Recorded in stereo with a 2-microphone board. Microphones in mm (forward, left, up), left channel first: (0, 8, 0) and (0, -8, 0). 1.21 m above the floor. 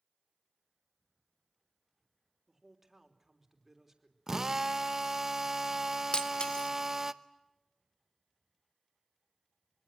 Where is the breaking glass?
55° left (ahead or behind), 1.4 m.